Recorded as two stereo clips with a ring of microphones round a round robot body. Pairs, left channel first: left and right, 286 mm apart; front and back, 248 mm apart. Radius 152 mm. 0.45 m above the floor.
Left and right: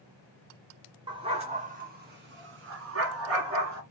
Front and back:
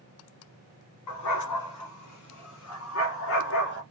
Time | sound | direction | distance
1.1 | a dog barking | 15° right | 1.6 m